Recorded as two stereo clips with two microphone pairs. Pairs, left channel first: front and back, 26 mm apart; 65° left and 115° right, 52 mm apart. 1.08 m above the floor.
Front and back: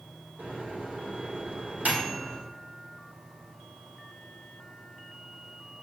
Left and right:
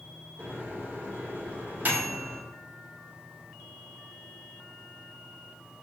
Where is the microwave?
170° right, 0.7 m.